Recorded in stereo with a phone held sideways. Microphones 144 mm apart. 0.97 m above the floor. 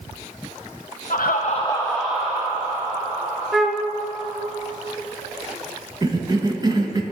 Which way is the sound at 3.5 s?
Centre (ahead or behind).